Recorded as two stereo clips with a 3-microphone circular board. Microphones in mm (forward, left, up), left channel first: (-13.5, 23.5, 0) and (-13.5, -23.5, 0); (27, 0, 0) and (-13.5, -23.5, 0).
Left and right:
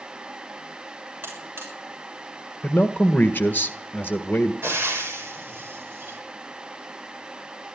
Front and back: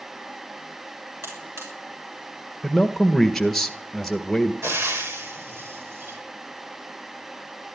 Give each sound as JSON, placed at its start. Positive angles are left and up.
{"t": 1.2, "sound": "a buzzer", "azimuth_deg": -135, "distance_m": 6.5}
{"t": 2.6, "sound": "a man speaking", "azimuth_deg": 120, "distance_m": 1.6}
{"t": 4.6, "sound": "frying", "azimuth_deg": -130, "distance_m": 4.5}